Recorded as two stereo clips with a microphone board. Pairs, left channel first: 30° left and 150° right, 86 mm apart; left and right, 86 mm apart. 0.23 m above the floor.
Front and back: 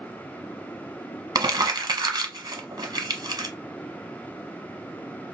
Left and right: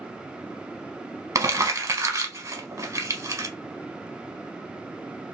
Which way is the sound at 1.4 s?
130° right.